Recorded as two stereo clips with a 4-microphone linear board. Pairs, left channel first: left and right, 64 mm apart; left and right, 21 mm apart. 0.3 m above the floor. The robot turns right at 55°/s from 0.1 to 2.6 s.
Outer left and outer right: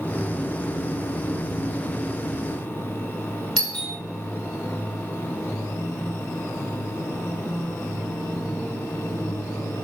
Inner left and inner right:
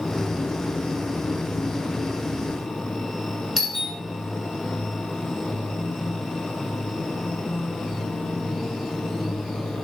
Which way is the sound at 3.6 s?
Centre (ahead or behind).